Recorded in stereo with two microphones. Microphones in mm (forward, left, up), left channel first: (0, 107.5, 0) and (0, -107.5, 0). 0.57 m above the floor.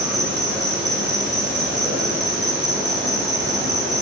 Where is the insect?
50° right (ahead or behind), 2 m.